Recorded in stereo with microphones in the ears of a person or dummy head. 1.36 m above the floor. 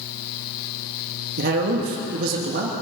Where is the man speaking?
60° right (ahead or behind), 2.5 m.